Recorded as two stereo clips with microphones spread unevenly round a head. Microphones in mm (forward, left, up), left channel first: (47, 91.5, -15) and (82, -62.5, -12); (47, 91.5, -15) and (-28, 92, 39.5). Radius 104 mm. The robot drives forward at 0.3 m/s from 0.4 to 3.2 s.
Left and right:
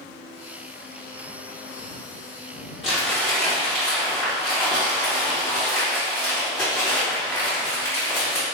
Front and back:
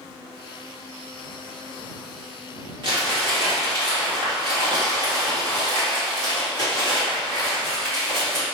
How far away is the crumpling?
About 1.9 m.